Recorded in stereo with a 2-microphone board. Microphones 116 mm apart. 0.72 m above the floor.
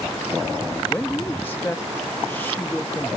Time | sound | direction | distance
0.8 | a man speaking | 15° left (ahead or behind) | ?